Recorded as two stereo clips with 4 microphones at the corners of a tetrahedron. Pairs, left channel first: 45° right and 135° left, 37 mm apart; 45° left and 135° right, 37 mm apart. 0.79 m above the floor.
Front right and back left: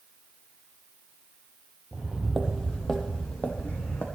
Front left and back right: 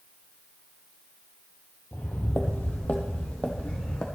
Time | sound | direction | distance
1.9 | footsteps | 70° left | 1.3 m